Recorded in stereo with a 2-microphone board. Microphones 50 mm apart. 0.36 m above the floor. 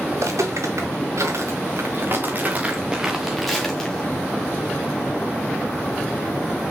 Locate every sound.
0.1 s footsteps: 85° right, 4 m; by 4.1 s 15° left (ahead or behind), 3 m